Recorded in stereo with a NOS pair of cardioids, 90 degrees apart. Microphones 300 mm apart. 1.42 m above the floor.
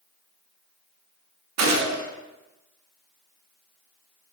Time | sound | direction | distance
1.6 | a gunshot | 60° right | 1.4 m